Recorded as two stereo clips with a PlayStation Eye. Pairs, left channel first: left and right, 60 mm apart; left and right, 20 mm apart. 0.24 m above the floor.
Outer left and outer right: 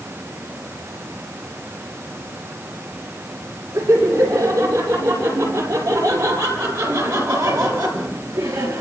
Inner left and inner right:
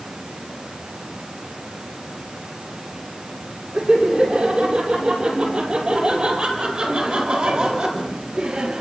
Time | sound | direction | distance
3.7 | laughter | 80° right | 10 m